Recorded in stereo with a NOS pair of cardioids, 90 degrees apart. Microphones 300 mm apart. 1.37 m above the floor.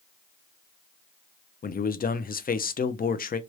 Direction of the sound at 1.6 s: 25° left.